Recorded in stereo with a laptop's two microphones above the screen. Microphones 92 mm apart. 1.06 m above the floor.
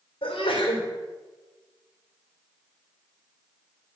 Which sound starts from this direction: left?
A sneeze, at 0.2 s.